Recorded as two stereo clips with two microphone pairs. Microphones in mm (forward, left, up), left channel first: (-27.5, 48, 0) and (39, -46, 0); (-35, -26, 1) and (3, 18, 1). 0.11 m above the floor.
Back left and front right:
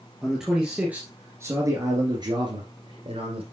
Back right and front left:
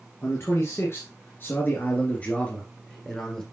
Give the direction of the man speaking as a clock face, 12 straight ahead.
5 o'clock.